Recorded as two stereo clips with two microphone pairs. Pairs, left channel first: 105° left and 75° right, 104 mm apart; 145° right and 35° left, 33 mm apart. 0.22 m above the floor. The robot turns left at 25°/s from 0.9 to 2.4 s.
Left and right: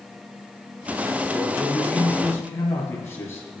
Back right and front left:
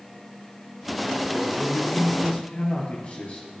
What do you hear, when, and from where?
1.3 s a man speaking: 165° right, 4.5 m; by 3.5 s 170° left, 4.5 m